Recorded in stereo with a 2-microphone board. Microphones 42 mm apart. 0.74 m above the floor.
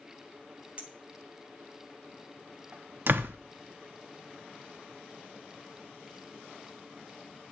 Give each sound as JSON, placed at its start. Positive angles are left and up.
{"t": 0.8, "sound": "a clink", "side_deg": -30, "distance_m": 2.0}
{"t": 3.1, "sound": "a door slam", "side_deg": -55, "distance_m": 0.9}